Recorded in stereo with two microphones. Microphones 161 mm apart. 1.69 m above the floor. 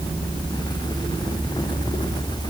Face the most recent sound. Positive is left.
No sound to turn to.